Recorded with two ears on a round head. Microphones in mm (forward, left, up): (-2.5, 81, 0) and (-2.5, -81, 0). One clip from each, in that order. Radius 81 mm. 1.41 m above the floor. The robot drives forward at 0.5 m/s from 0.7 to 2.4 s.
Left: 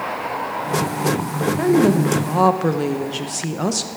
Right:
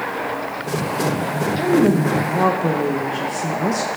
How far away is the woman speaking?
About 1.3 m.